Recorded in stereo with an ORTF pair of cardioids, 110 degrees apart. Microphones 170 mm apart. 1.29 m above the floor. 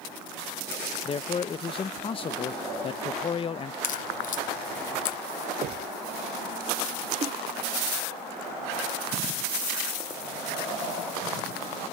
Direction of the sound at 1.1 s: 30° left.